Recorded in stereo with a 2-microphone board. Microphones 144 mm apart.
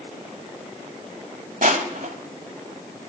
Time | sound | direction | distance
1.6 | crushing | 65° right (ahead or behind) | 1.0 m